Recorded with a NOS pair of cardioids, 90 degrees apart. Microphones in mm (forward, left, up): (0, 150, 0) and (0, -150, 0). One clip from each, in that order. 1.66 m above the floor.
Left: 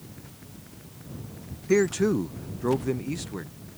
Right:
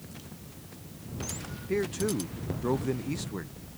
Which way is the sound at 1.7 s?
45° left.